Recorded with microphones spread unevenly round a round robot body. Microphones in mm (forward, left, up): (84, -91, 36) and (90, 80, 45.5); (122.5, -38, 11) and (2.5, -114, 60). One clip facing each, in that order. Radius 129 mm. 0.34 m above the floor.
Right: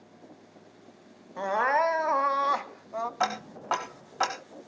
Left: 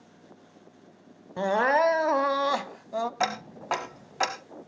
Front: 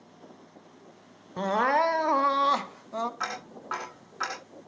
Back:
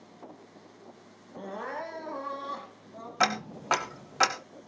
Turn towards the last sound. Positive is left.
turn(degrees=170)